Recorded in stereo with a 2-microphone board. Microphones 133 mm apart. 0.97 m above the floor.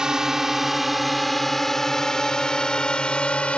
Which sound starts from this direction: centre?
A drone, at 0.0 s.